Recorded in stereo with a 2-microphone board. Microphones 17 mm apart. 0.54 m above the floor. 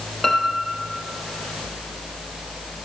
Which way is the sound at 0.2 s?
15° left (ahead or behind).